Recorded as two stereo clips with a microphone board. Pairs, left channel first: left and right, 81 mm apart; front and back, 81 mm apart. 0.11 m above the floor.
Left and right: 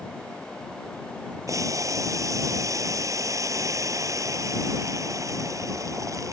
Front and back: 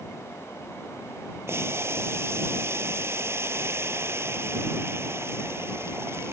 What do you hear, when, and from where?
1.5 s boiling: 125° right